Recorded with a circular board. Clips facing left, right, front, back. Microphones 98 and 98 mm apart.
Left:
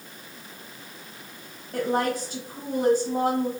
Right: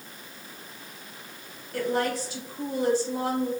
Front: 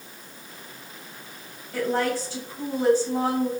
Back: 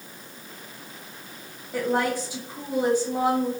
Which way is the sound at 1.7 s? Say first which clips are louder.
Left 2 dB, even; 110° left.